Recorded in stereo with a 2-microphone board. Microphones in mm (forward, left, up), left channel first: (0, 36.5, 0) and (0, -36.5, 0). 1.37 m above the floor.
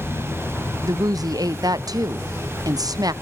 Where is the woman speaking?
65° right (ahead or behind), 0.5 m.